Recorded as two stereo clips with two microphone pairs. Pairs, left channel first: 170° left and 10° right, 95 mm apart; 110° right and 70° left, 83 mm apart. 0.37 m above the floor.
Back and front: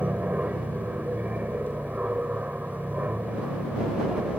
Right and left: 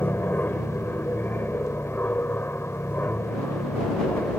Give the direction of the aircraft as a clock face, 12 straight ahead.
2 o'clock.